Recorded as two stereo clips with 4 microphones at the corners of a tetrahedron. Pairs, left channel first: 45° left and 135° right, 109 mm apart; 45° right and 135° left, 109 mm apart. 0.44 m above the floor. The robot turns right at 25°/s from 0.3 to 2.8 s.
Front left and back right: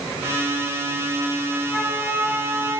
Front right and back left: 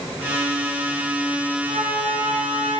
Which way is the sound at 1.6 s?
135° left.